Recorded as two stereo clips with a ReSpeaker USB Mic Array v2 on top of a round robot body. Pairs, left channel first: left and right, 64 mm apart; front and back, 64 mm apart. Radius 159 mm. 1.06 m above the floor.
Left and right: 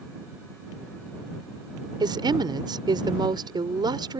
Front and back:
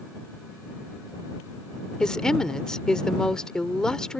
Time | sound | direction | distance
2.0 | a woman speaking | 80° right | ?